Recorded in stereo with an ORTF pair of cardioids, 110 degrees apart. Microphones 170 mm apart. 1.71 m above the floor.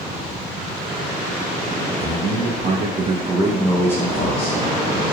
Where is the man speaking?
70° right, 1.1 m; by 4.6 s 40° left, 0.9 m.